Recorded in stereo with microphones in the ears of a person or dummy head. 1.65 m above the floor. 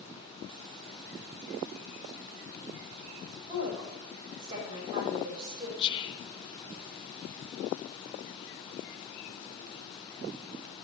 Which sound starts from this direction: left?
Whispering, at 5.8 s.